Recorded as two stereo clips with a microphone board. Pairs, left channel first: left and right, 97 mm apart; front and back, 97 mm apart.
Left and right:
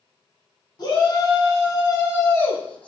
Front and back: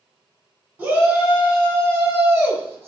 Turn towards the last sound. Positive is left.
turn(degrees=155)